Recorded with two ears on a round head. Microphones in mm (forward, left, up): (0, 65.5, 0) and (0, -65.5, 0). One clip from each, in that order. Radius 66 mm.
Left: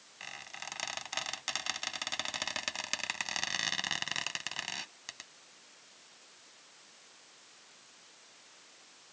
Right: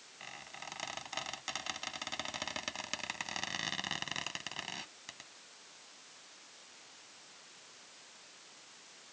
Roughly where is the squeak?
Left.